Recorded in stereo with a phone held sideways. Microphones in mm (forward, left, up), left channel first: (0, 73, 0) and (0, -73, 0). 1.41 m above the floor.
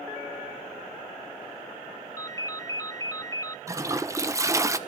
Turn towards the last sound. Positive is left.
turn(degrees=-20)  # may be behind; listen again after turning